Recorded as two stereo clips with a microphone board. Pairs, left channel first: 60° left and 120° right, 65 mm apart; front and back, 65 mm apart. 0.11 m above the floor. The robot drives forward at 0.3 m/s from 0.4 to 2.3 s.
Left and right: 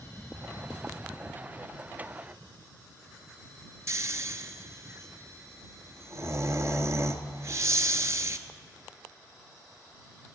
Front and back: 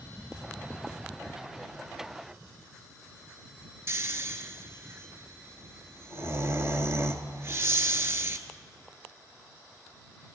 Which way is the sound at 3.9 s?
145° right.